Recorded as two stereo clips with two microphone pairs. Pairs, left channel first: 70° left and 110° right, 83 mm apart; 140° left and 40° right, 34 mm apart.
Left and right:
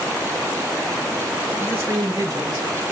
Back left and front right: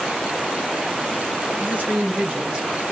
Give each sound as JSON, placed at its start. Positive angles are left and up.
{"t": 1.6, "sound": "a man speaking", "azimuth_deg": -40, "distance_m": 1.8}